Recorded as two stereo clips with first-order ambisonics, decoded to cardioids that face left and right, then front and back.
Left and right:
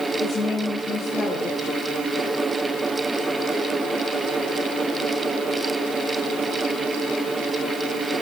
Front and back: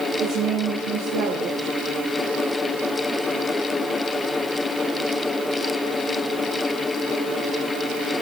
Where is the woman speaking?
Straight behind, 2.5 m.